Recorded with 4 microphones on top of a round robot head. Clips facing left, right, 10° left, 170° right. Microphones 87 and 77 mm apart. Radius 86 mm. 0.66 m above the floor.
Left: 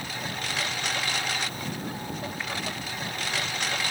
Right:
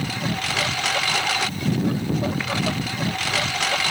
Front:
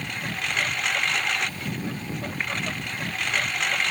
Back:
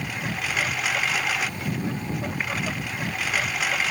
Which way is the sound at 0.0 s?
80° right.